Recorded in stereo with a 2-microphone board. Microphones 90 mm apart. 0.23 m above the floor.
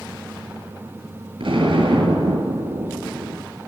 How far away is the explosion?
About 1.6 m.